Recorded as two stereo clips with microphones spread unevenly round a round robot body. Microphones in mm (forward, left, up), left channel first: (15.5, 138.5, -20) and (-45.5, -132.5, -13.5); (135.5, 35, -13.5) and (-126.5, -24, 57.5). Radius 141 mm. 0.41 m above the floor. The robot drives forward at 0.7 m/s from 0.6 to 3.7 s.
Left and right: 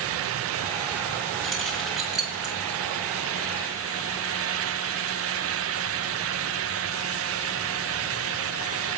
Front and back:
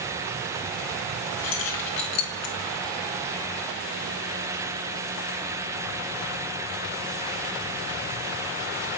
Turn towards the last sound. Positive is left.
turn(degrees=-20)